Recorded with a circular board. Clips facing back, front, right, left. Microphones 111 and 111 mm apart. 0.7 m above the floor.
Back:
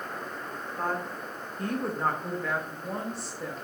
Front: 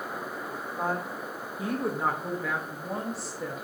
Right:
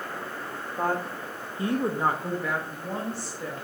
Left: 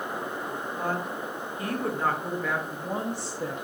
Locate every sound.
0.8 s a woman speaking: 80° right, 1.4 m; by 3.6 s 90° left, 1.2 m